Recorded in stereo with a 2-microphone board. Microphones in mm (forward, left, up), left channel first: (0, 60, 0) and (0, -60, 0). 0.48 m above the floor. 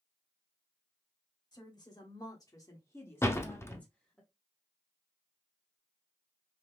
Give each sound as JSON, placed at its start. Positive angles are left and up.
{"t": 1.5, "sound": "a woman speaking", "side_deg": 35, "distance_m": 1.2}
{"t": 3.2, "sound": "a door slam", "side_deg": 20, "distance_m": 0.5}